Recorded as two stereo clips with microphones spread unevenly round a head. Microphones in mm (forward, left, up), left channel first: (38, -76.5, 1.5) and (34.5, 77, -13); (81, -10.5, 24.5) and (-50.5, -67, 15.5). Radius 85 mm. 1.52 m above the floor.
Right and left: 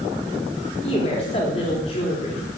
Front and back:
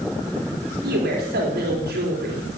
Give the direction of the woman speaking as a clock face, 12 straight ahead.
5 o'clock.